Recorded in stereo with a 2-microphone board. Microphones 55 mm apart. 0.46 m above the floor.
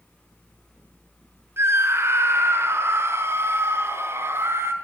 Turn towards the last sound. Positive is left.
turn(degrees=-50)  # may be behind; listen again after turning